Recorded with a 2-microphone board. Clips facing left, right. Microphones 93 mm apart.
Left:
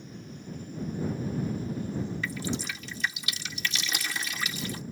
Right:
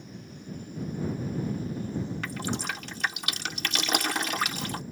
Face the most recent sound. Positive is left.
turn(degrees=-65)  # may be behind; listen again after turning